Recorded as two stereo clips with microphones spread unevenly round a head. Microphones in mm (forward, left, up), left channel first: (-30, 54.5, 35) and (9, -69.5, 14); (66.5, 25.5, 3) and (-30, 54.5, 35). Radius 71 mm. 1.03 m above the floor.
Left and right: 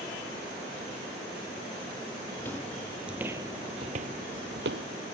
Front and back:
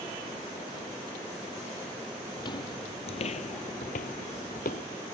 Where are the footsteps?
35° left; by 4.8 s 60° right.